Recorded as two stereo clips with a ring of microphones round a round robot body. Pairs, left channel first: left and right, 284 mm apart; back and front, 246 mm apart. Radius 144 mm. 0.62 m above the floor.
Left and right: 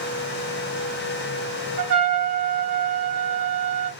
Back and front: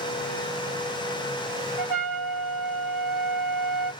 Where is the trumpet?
80° right, 2.0 m.